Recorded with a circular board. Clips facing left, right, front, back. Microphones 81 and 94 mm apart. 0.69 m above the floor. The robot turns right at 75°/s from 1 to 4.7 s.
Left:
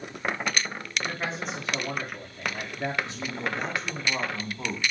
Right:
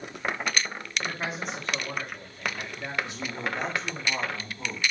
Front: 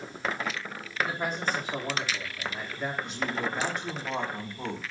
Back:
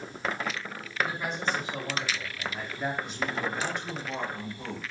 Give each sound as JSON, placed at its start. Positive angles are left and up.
{"t": 1.0, "sound": "a man speaking", "azimuth_deg": -35, "distance_m": 1.4}
{"t": 3.0, "sound": "a man speaking", "azimuth_deg": -95, "distance_m": 3.0}